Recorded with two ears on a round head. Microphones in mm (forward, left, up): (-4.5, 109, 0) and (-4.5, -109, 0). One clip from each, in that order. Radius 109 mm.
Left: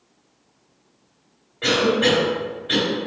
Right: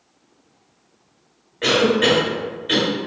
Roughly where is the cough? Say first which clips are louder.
Right 2 dB; right.